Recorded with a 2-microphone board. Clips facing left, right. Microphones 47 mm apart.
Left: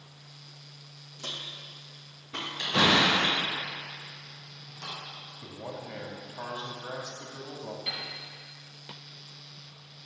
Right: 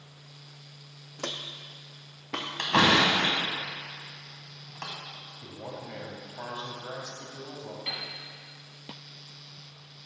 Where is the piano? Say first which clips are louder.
Right 2 dB; 20° right (ahead or behind), 2.5 m.